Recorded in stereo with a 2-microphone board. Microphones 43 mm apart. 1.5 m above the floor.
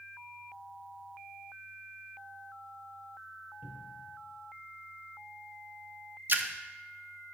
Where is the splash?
55° right (ahead or behind), 0.5 m.